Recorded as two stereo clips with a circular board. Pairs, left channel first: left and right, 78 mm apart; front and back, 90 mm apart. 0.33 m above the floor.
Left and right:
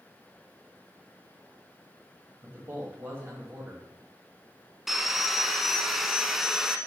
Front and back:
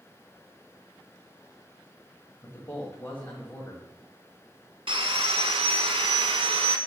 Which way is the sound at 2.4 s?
55° right.